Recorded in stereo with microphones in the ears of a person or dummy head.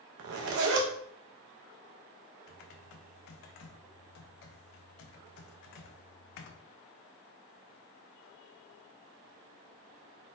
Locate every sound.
0.2 s a zipper: 60° right (ahead or behind), 0.6 m
2.5 s typing on a keyboard: 65° left (ahead or behind), 0.5 m